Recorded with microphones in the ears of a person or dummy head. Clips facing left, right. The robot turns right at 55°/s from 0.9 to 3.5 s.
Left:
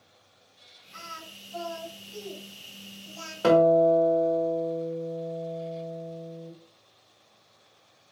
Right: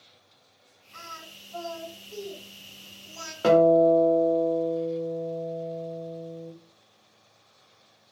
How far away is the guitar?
About 1.0 m.